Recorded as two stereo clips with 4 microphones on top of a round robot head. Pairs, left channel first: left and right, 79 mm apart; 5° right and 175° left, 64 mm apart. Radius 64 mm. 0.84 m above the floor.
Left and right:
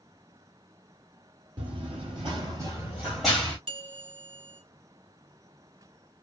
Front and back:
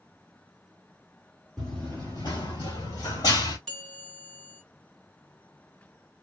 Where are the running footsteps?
90° right, 1.3 m; by 3.6 s 10° left, 1.4 m.